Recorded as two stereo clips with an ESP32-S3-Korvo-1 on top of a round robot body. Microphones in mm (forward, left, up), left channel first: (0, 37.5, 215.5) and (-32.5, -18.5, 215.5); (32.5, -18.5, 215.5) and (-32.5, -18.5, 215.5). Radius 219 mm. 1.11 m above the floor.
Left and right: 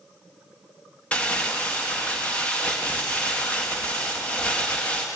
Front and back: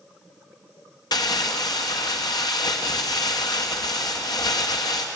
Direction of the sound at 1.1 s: 10° right.